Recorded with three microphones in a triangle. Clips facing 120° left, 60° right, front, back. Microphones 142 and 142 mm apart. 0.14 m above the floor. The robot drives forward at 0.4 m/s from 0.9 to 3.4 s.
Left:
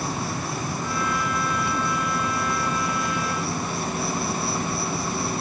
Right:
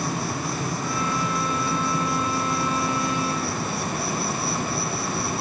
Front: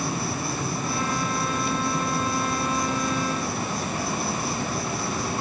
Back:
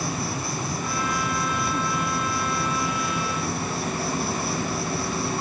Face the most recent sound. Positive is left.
turn(degrees=-75)